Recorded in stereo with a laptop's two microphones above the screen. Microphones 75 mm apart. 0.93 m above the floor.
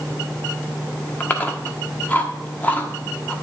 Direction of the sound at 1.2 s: 25° left (ahead or behind).